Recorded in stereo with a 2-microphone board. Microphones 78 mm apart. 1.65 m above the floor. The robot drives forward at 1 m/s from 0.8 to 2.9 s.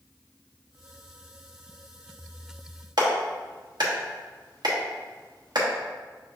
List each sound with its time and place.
3.0 s a clap: 70° right (ahead or behind), 1.1 m